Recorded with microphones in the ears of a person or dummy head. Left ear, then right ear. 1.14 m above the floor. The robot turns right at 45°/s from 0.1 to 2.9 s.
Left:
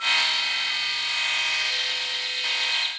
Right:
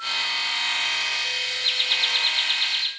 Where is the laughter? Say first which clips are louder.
Right 4 dB; 65° right, 2 m; by 2.9 s 10° right, 2 m.